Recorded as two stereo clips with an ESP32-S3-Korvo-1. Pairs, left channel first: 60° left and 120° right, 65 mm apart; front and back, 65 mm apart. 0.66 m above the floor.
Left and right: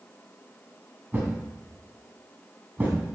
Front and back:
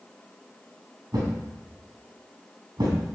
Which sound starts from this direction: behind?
A thud, at 1.1 s.